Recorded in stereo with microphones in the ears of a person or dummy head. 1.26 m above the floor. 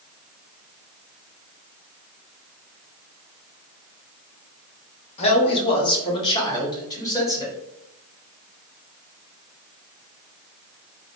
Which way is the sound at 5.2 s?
35° left (ahead or behind).